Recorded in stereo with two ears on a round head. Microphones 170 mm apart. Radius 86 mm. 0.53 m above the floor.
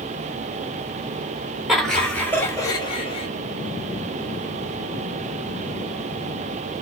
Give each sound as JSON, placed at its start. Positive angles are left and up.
{"t": 1.7, "sound": "laughter", "side_deg": 0, "distance_m": 2.0}